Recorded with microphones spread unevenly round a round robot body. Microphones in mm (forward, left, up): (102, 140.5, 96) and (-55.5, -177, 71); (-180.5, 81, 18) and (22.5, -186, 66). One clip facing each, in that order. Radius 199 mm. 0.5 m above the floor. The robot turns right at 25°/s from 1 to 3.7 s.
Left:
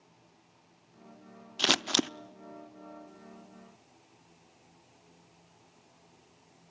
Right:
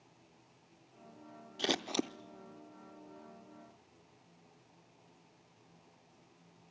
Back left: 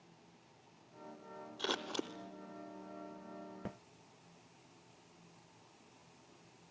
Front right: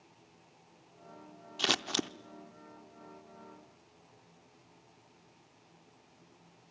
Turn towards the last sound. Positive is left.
turn(degrees=50)